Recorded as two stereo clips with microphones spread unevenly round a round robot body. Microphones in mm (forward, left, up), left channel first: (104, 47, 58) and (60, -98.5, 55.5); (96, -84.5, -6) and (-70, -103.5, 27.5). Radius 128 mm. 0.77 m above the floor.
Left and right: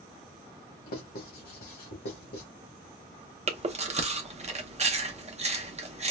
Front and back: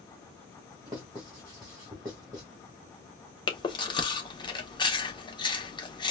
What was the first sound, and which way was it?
Writing, 110° left.